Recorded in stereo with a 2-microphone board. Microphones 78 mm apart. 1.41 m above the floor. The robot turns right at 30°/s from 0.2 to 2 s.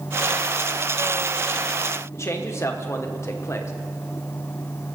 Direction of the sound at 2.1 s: 35° left (ahead or behind).